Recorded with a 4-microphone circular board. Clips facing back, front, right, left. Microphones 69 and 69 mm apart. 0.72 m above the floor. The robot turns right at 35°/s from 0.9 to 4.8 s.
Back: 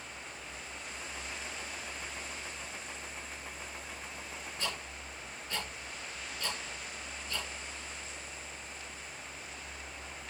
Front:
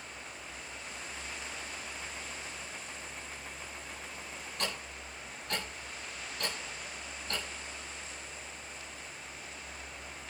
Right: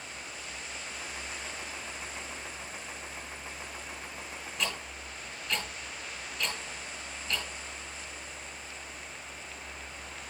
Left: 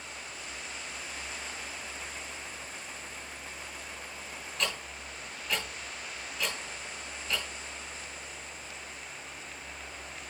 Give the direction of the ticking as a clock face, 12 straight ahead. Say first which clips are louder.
Front 2 dB, left 1 dB; 12 o'clock.